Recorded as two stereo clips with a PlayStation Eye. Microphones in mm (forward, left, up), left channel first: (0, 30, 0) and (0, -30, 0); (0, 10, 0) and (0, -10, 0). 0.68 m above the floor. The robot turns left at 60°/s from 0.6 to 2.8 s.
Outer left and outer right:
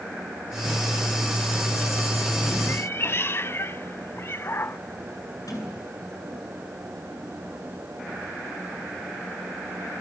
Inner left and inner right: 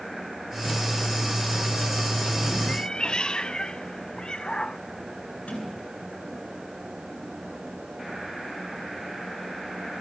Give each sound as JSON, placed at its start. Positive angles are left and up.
{"t": 2.7, "sound": "a cat meowing", "side_deg": 40, "distance_m": 0.7}
{"t": 5.5, "sound": "a sliding door", "side_deg": 75, "distance_m": 9.0}